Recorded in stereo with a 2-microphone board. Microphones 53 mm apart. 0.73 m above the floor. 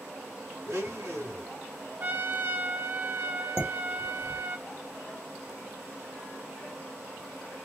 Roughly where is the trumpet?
Right.